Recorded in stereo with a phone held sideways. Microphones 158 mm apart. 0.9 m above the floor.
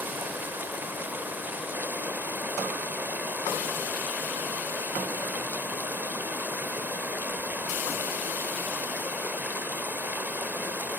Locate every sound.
0.0 s running water: 10° right (ahead or behind), 0.7 m